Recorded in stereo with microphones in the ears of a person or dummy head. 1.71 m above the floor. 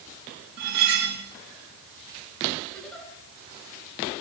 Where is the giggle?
5° left (ahead or behind), 9.5 m.